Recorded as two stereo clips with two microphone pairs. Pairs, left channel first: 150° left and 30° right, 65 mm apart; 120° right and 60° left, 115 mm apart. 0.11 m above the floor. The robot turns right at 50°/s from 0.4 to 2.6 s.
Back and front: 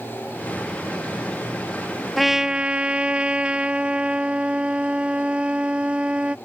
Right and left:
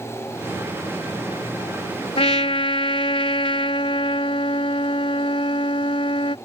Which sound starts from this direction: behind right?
A trumpet, at 2.2 s.